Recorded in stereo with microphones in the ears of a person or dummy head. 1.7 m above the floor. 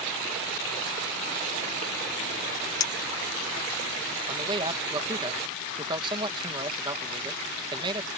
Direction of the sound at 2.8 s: 20° left (ahead or behind).